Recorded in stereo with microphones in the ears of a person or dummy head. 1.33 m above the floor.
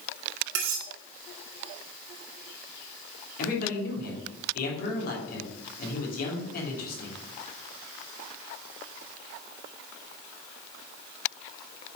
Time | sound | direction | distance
0.6 | cutlery clinking | 75° right (ahead or behind) | 2 m
3.4 | a man speaking | 60° left (ahead or behind) | 3 m